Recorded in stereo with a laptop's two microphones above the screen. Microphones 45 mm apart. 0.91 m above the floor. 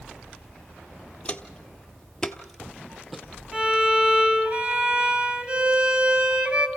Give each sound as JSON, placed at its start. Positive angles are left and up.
{"t": 1.2, "sound": "footsteps", "side_deg": 25, "distance_m": 1.2}
{"t": 3.5, "sound": "a violin", "side_deg": -25, "distance_m": 2.5}